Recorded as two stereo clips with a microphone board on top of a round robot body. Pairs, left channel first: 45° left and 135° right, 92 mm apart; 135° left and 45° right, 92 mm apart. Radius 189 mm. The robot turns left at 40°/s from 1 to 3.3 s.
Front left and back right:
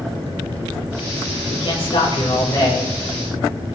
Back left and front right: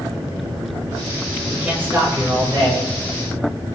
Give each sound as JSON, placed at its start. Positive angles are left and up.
{"t": 1.5, "sound": "a man speaking", "azimuth_deg": 40, "distance_m": 3.5}